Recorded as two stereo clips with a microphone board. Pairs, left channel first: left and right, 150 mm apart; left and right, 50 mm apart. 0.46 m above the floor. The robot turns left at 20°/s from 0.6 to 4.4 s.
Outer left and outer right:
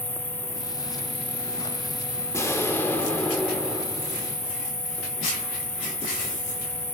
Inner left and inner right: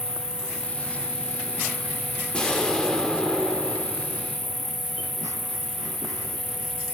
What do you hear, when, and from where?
0.0 s an insect: 155° right, 2.5 m; by 6.9 s 130° left, 2.5 m
2.3 s an explosion: 40° left, 1.4 m; by 4.3 s straight ahead, 1.4 m